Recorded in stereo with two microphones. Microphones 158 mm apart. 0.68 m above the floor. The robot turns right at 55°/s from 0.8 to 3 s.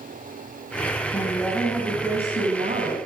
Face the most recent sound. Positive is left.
turn(degrees=-100)